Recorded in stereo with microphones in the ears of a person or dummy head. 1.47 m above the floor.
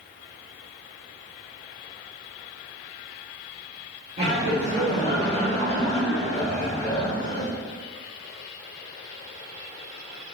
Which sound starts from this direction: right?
Laughter, at 4.2 s.